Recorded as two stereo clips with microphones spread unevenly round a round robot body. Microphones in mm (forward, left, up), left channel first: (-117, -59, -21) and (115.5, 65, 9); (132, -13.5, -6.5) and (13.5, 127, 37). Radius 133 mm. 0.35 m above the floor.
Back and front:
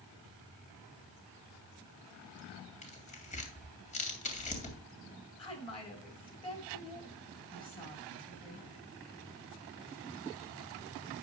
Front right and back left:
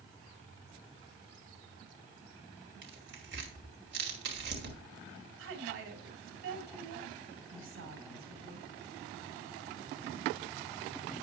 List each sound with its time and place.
2.8 s tearing paper: 155° left, 2 m
5.4 s a woman speaking: 140° left, 3 m